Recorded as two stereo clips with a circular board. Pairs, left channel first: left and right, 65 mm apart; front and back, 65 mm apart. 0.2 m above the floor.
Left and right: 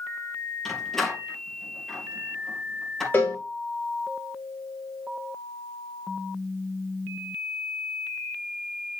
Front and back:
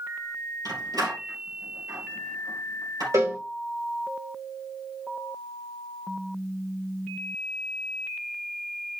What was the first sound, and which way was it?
A door slam, 175° left.